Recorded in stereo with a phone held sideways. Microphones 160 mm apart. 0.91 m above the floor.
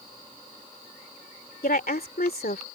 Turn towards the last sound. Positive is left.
turn(degrees=80)